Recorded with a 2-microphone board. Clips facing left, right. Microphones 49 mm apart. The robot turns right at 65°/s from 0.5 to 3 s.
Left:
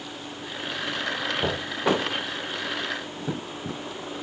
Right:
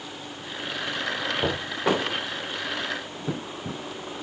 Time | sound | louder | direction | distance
1.4 | knocking | right 1 dB | 5° right (ahead or behind) | 8 m